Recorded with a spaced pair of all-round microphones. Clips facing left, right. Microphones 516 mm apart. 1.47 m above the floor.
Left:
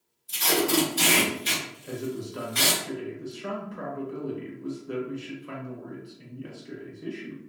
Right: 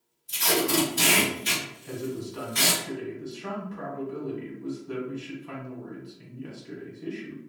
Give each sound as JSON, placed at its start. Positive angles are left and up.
{"t": 0.3, "sound": "tape being pulled", "side_deg": -45, "distance_m": 1.8}
{"t": 1.8, "sound": "a man speaking", "side_deg": -15, "distance_m": 0.9}